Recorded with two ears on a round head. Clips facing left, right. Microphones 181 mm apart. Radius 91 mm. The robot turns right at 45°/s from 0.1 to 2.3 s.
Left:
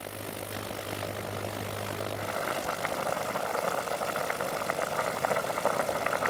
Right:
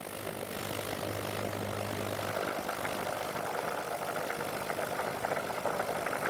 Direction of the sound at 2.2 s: 60° left (ahead or behind).